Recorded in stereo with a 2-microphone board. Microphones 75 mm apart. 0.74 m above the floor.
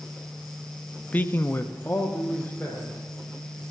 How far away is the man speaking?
About 0.6 m.